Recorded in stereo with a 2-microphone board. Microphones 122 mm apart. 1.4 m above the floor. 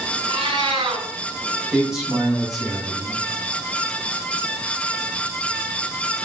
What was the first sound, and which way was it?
A cat meowing, 45° right (ahead or behind).